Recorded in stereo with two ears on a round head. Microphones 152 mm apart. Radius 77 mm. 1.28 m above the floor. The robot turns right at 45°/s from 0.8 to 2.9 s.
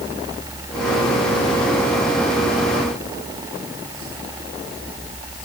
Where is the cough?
I don't hear a cough.